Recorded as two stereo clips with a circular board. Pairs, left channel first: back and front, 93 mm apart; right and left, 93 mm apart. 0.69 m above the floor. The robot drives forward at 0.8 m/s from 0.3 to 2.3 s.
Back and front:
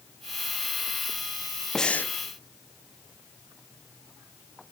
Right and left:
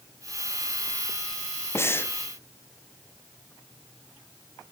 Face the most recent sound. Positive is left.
turn(degrees=-145)